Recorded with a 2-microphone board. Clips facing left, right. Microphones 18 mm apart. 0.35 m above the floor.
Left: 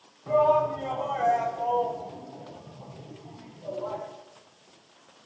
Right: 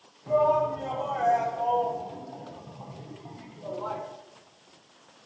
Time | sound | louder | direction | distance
0.3 | a shout | left 1 dB | 25° left (ahead or behind) | 2 m